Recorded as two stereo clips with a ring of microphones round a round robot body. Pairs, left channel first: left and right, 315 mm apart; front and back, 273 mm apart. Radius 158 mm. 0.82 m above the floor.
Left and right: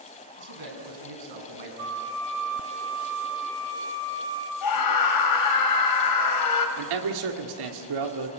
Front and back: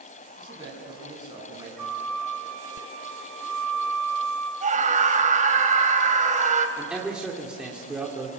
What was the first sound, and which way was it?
A man speaking, 105° right.